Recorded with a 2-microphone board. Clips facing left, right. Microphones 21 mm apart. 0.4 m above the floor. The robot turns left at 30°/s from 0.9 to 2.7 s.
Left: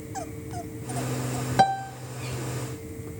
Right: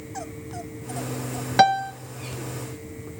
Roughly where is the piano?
Right.